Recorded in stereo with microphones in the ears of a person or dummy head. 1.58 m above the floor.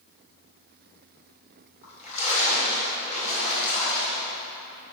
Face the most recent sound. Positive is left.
turn(degrees=40)  # may be behind; listen again after turning